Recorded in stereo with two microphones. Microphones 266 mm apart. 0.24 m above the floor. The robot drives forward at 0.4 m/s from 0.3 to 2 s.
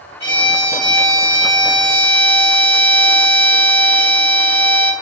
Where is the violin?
15° right (ahead or behind), 1.6 m; by 4.9 s 20° right (ahead or behind), 1.4 m.